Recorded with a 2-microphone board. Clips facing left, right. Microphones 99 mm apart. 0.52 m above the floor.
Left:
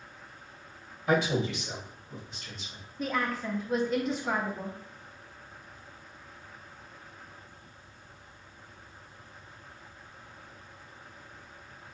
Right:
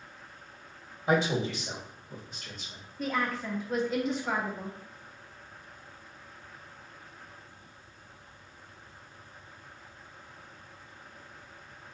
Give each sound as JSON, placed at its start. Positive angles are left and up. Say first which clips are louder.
{"t": 1.1, "sound": "a man speaking", "louder": "even", "side_deg": -30, "distance_m": 1.8}
{"t": 3.0, "sound": "a woman speaking", "louder": "even", "side_deg": 0, "distance_m": 0.7}